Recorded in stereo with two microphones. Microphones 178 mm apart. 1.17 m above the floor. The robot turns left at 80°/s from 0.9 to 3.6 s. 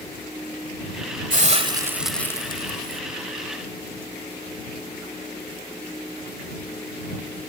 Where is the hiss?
115° right; by 3.0 s 105° left.